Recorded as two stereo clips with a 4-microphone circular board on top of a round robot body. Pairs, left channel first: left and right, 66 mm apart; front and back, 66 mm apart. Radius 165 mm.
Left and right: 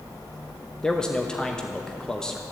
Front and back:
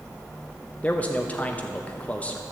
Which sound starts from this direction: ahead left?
A man speaking, at 0.8 s.